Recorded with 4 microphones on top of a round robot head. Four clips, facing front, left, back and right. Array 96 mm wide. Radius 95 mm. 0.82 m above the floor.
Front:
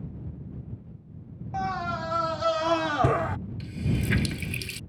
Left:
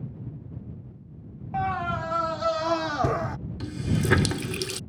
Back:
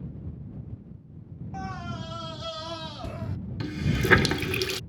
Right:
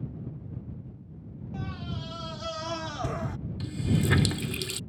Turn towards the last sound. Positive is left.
turn(degrees=160)